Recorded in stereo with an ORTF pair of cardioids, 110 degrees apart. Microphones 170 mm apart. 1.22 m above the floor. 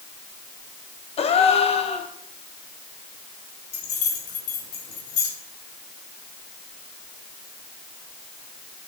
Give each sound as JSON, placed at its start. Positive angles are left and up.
{"t": 1.2, "sound": "a gasp", "azimuth_deg": 35, "distance_m": 0.9}
{"t": 3.7, "sound": "keys jangling", "azimuth_deg": 65, "distance_m": 3.0}